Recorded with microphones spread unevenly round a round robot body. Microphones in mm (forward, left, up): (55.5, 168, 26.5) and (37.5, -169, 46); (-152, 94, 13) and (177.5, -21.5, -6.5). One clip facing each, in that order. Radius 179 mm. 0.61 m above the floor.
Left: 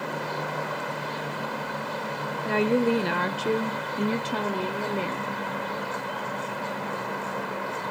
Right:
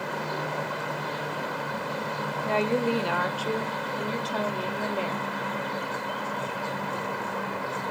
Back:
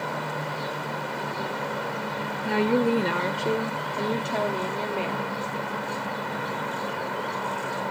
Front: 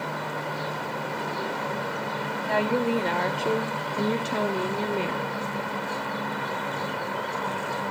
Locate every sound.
2.5 s a woman speaking: 135° left, 1.0 m; by 5.4 s 35° left, 1.6 m